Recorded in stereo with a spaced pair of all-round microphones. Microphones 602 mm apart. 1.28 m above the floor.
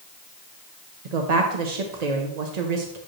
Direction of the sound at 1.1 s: 85° right.